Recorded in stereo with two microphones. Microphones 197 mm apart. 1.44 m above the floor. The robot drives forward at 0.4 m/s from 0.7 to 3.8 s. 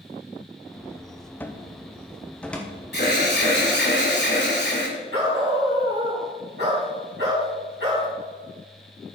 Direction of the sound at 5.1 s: 65° right (ahead or behind).